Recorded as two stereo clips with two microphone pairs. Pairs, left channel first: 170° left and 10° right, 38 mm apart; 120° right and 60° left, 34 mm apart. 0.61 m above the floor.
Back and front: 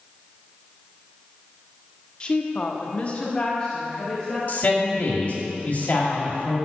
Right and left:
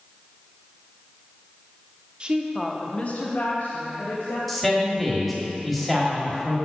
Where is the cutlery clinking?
No cutlery clinking in this recording.